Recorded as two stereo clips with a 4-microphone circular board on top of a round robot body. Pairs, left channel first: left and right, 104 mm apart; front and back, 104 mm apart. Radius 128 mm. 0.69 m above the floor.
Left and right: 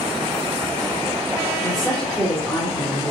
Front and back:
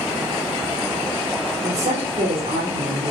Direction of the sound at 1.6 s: 170° left.